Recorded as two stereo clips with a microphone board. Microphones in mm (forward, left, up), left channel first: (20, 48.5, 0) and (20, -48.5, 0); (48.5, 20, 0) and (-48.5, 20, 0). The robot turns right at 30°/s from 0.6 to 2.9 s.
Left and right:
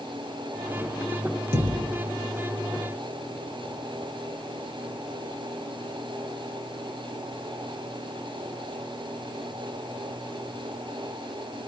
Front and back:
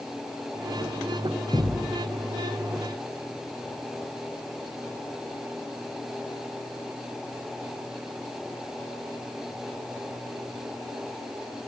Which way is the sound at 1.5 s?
100° right.